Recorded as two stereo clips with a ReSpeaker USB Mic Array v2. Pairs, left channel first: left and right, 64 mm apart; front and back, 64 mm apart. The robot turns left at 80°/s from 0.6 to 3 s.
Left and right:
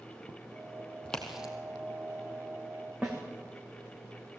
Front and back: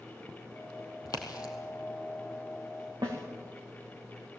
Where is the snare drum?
165° right, 4.5 m.